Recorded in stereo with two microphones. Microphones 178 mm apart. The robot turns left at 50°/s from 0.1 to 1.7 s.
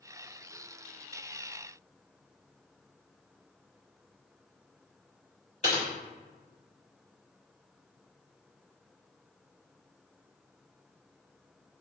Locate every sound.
5.6 s typing on a keyboard: 40° left (ahead or behind), 1.2 m